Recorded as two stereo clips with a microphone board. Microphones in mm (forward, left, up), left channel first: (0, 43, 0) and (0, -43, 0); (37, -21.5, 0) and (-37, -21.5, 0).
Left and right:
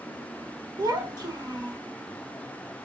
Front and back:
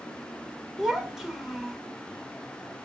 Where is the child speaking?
100° right, 1.2 m.